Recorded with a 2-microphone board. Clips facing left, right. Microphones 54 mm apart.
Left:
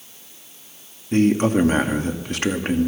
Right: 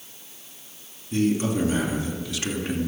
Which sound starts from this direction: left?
A man speaking, at 1.1 s.